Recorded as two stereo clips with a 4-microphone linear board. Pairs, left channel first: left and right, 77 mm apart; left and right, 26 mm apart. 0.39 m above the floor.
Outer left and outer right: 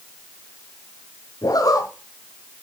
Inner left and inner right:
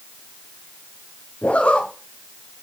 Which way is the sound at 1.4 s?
55° left (ahead or behind).